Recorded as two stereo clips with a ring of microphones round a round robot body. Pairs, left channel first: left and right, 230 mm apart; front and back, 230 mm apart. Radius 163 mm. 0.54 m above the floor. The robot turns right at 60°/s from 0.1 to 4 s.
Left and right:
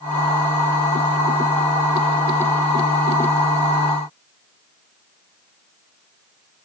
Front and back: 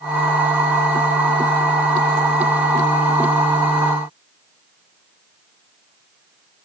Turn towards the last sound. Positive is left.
No sound to turn to.